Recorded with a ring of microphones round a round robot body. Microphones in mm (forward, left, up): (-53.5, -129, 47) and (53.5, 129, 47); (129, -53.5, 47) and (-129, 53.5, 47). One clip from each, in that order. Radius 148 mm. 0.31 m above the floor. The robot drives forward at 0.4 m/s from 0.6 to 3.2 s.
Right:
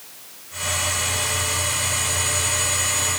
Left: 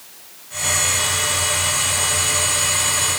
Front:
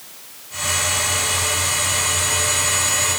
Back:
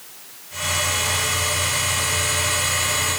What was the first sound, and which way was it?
Only background noise.